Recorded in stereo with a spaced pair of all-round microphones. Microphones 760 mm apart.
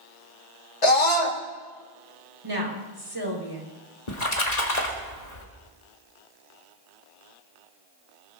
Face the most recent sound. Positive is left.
turn(degrees=60)  # may be behind; listen again after turning